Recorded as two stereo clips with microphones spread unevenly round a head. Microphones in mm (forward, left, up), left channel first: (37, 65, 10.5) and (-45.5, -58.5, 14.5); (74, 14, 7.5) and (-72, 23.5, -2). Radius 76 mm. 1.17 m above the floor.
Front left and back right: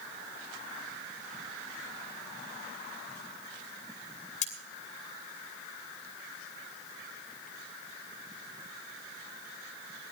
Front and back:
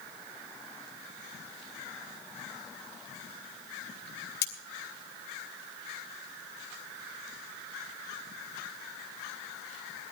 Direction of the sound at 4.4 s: 10° left.